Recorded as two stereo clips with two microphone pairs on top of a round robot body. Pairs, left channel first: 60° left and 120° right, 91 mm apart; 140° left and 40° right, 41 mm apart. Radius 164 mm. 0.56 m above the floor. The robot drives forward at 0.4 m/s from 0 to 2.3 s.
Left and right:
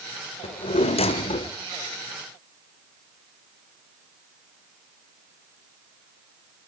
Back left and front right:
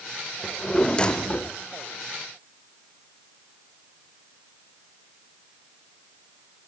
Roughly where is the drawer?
Ahead left.